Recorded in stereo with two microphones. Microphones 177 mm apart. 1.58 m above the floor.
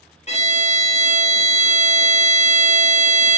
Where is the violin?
40° left (ahead or behind), 0.5 m.